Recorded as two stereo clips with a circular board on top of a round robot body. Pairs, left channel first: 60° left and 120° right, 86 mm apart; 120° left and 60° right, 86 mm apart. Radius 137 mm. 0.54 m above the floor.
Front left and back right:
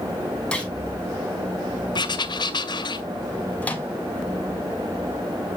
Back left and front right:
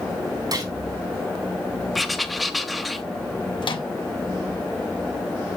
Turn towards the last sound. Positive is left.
turn(degrees=130)